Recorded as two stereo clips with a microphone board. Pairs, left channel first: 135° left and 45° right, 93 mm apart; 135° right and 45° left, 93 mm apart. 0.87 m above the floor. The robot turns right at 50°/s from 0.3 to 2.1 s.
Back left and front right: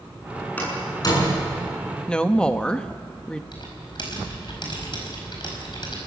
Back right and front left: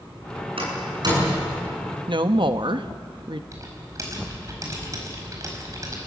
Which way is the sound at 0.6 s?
60° left.